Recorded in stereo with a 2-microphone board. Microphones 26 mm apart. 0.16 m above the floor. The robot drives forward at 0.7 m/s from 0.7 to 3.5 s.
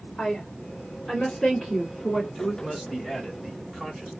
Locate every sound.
0.2 s a woman speaking: 15° left (ahead or behind), 1.2 m; by 2.2 s 10° left (ahead or behind), 2.0 m
2.4 s a man speaking: 5° left (ahead or behind), 1.6 m